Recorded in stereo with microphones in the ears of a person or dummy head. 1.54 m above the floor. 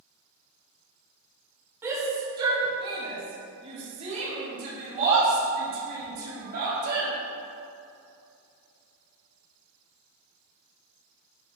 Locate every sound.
1.8 s a shout: 15° right (ahead or behind), 2.5 m; by 7.1 s 55° right (ahead or behind), 4.5 m